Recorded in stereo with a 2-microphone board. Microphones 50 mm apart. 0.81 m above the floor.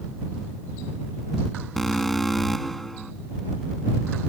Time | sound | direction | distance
1.8 | an alarm | 5° left (ahead or behind) | ?